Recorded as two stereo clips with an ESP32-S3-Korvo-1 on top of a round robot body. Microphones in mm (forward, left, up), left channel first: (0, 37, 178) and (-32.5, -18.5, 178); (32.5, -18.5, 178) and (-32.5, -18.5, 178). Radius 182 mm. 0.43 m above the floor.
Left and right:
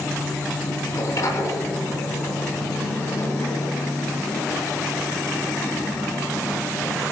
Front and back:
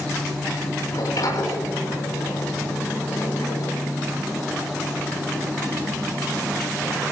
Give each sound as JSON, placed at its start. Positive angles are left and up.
{"t": 0.9, "sound": "a sliding door", "azimuth_deg": 25, "distance_m": 7.0}